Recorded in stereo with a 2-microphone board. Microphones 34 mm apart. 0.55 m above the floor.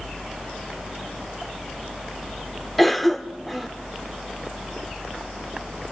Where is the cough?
5° left (ahead or behind), 1.6 m.